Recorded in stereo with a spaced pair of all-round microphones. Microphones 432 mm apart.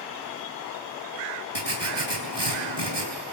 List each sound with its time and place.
1.6 s writing: 70° right (ahead or behind), 4.5 m